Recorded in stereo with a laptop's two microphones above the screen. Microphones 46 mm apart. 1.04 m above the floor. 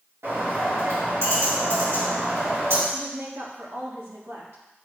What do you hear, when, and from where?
0.2 s a bird: 75° right (ahead or behind), 3.5 m
2.9 s a woman speaking: 70° right (ahead or behind), 1.7 m